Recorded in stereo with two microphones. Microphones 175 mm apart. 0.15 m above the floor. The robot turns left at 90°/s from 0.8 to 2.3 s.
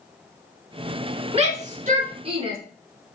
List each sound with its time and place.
1.3 s a shout: 35° right (ahead or behind), 1.5 m; by 2.6 s 30° right (ahead or behind), 1.5 m